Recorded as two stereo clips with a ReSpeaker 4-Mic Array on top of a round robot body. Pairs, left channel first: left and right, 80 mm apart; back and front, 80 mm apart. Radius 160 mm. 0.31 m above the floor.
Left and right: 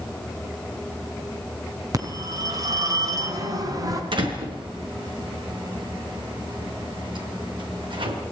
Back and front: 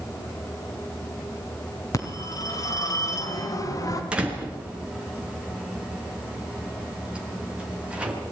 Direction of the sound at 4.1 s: 75° right.